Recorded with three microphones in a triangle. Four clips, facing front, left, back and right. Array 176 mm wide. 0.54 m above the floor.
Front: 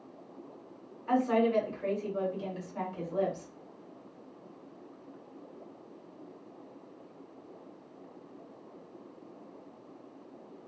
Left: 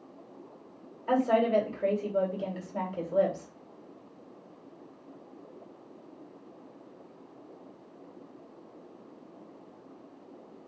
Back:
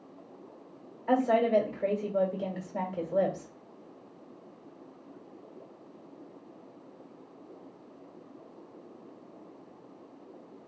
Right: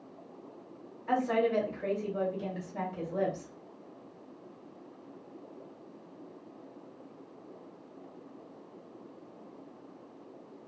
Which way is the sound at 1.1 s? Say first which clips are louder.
Left 3 dB, back 2 dB; 140° left.